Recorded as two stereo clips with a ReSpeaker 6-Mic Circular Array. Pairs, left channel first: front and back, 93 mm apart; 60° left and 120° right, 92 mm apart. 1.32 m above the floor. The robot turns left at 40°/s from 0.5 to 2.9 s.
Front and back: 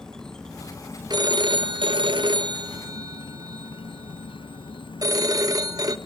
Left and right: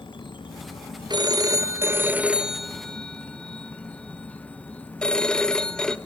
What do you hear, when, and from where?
0.0 s an insect: 85° left, 0.7 m; by 6.1 s 15° right, 0.7 m
1.1 s a phone ringing: 145° right, 0.7 m; by 6.0 s 140° left, 0.7 m